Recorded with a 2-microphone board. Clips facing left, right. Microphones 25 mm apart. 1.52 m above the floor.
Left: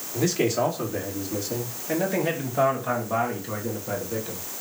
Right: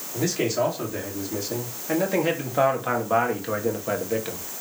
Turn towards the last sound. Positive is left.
turn(degrees=-50)  # may be behind; listen again after turning